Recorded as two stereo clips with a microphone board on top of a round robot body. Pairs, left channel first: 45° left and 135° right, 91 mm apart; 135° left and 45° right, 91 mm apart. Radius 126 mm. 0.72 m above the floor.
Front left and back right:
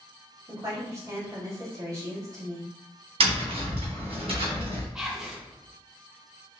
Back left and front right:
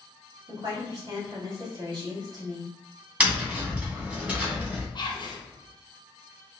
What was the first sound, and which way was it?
A woman speaking, 85° right.